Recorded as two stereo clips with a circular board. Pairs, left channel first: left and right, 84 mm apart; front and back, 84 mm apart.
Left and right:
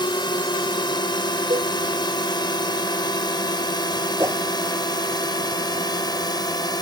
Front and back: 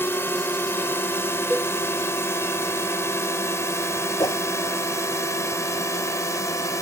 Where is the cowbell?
95° right.